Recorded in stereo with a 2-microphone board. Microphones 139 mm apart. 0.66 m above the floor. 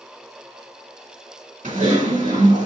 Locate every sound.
1.6 s typing on a keyboard: 75° right (ahead or behind), 2 m